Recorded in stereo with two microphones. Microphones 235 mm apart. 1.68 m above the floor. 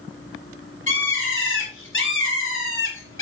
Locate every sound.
0.9 s a bird: 55° left (ahead or behind), 4.5 m